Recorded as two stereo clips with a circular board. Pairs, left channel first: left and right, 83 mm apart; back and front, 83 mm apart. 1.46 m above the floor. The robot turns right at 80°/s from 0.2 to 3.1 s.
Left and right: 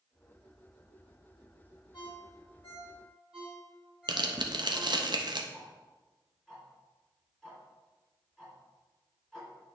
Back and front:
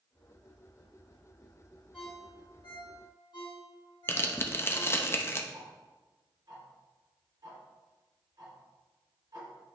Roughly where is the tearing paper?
Behind right.